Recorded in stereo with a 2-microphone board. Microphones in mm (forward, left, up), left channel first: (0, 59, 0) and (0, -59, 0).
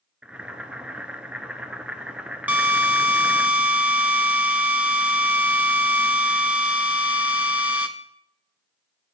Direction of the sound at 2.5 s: 15° right (ahead or behind).